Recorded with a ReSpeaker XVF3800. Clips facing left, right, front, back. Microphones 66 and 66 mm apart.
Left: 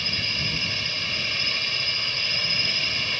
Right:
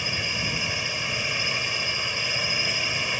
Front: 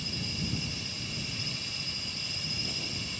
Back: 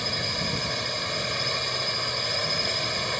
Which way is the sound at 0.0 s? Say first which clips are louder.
Right 1 dB, back 7 dB; 165° right.